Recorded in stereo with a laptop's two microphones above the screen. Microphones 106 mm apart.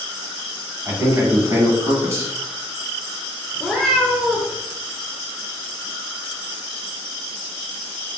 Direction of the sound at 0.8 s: 35° right (ahead or behind).